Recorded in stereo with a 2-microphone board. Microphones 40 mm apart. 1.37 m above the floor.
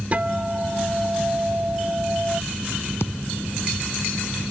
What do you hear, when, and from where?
0.1 s a guitar: 40° right (ahead or behind)
3.0 s a thud: 70° left (ahead or behind)